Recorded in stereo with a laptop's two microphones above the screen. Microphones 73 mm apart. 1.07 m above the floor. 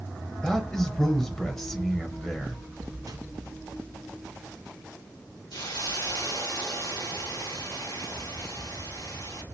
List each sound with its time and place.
0.4 s a man speaking: 10° left (ahead or behind), 0.9 m
3.1 s a microwave: 55° right (ahead or behind), 0.6 m
5.5 s a hiss: 75° left (ahead or behind), 2 m